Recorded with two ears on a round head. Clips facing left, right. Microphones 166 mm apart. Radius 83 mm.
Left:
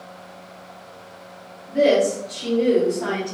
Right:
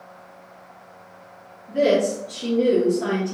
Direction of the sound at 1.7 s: 25° right (ahead or behind).